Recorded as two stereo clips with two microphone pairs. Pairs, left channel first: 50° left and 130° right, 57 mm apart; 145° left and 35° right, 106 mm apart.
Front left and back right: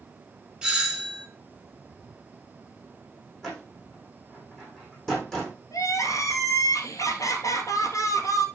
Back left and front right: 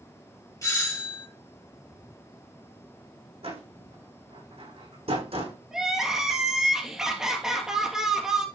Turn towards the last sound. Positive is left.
turn(degrees=50)